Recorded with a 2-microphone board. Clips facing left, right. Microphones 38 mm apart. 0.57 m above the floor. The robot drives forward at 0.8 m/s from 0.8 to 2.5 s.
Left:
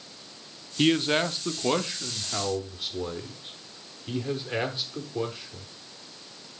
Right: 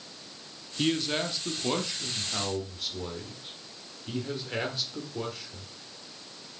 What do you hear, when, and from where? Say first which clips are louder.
0.8 s a man speaking: left 5 dB; 30° left (ahead or behind), 0.7 m; by 5.7 s 15° left (ahead or behind), 1.3 m